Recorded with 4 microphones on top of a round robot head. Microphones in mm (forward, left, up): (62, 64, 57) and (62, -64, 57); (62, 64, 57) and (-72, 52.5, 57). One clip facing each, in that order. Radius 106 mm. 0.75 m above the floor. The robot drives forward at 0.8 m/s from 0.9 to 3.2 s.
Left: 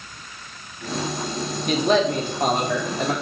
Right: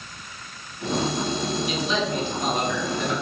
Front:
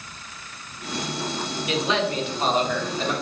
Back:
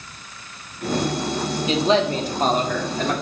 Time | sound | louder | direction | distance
1.7 | a man speaking | left 11 dB, back 5 dB | 125° left | 1.8 m